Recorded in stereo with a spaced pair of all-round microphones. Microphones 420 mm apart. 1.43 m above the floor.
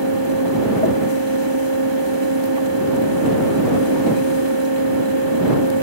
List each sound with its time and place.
0.0 s a fan: 75° right (ahead or behind)